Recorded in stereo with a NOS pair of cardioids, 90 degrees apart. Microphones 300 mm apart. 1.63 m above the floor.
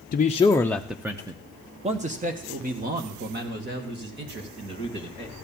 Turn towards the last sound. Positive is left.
turn(degrees=-40)